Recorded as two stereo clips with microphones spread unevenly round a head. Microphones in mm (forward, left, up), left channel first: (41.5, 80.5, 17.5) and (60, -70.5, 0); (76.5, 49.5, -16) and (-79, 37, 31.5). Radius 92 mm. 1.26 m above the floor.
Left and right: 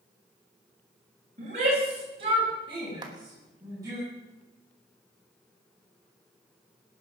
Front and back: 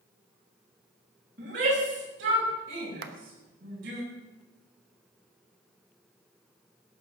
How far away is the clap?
About 1.1 m.